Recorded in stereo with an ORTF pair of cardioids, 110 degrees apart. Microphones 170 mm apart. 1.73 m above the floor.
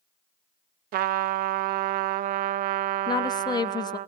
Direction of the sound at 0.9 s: 65° right.